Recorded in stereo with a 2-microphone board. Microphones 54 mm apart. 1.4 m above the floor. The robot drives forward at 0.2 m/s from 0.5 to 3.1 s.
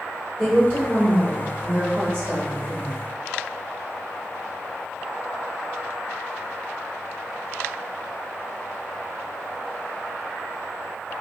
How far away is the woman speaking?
About 2.0 m.